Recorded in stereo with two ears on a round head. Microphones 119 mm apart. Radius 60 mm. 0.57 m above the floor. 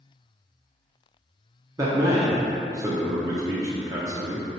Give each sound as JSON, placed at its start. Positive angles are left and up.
{"t": 1.8, "sound": "a man speaking", "side_deg": -25, "distance_m": 0.6}